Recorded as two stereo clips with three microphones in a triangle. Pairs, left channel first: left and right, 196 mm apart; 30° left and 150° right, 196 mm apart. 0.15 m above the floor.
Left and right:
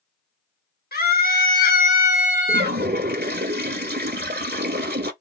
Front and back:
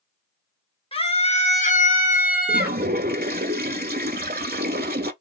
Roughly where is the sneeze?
No sneeze in this recording.